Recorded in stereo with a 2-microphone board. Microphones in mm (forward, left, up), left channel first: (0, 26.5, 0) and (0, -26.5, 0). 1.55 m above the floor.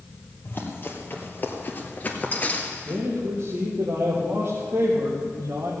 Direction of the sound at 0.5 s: 40° left (ahead or behind).